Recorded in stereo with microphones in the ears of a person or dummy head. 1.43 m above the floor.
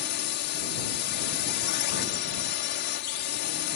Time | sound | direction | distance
0.0 | a drone | 50° left (ahead or behind) | ?